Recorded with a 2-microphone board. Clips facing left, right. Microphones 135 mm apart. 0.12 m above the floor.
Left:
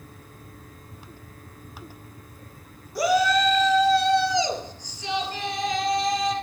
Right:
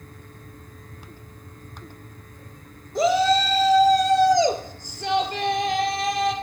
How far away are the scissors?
No scissors in this recording.